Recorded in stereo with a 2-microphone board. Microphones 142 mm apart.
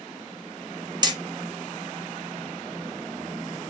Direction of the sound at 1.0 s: 30° right (ahead or behind).